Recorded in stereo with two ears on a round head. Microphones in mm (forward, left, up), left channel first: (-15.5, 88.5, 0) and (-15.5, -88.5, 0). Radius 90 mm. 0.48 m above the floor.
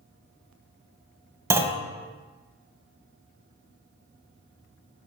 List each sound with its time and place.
1.5 s a clunk: 15° right (ahead or behind), 1.0 m